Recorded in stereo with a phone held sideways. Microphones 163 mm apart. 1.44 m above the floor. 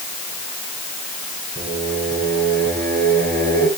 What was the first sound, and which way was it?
Singing, 65° right (ahead or behind).